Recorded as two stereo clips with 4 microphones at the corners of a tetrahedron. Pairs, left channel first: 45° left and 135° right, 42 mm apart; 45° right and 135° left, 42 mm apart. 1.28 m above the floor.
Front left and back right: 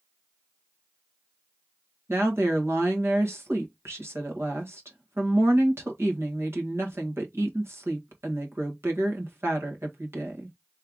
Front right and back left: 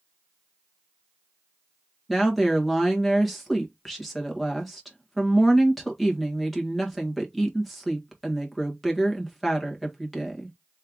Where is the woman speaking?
135° right, 1.8 m.